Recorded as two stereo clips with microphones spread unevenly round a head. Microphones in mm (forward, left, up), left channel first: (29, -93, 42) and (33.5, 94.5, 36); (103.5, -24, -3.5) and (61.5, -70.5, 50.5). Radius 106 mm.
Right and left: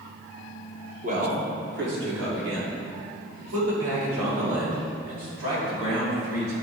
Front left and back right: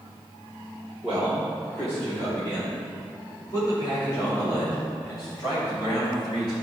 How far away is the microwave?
I don't hear a microwave.